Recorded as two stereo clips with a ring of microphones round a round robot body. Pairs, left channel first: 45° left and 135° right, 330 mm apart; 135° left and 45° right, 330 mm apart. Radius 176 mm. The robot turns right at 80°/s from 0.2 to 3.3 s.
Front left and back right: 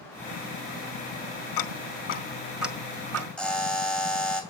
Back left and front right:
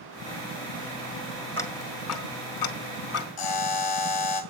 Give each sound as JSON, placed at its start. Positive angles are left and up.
{"t": 1.6, "sound": "ticking", "azimuth_deg": 50, "distance_m": 1.4}
{"t": 3.4, "sound": "a buzzer", "azimuth_deg": 130, "distance_m": 2.5}